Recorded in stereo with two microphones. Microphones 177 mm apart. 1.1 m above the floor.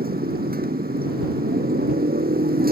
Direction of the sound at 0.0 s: 60° right (ahead or behind).